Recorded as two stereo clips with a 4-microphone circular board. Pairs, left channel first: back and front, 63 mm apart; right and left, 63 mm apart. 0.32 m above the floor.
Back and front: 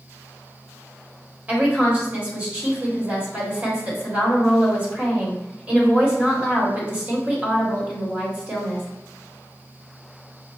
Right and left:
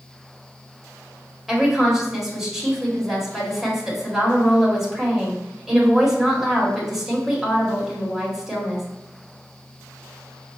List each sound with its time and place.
1.5 s a woman speaking: 10° left, 1.4 m